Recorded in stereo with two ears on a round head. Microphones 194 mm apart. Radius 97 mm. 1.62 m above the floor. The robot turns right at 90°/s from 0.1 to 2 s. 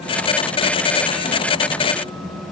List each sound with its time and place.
Only background noise.